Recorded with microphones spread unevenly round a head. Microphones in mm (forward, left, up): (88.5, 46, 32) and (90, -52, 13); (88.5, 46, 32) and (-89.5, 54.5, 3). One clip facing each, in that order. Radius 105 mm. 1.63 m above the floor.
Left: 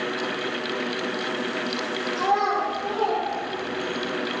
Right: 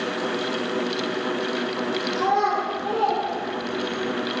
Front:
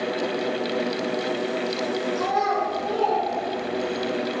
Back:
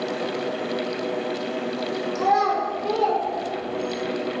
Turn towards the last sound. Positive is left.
turn(degrees=160)